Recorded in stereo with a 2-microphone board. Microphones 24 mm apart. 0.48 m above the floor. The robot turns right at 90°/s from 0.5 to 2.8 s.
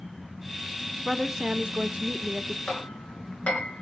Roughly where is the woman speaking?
Behind.